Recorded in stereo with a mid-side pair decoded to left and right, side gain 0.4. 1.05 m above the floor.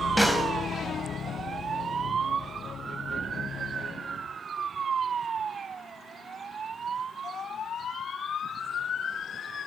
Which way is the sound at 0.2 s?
10° right.